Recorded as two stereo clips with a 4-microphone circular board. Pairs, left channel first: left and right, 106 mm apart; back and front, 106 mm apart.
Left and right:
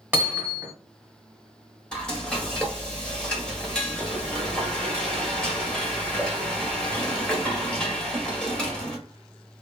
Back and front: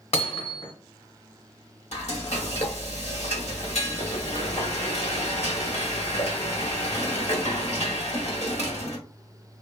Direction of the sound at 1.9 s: 175° left.